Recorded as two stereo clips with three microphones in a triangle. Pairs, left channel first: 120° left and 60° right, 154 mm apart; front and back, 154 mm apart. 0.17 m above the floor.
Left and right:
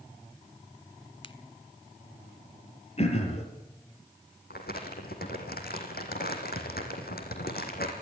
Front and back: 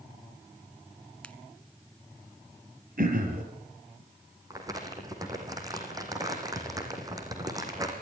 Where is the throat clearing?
165° left, 5 m.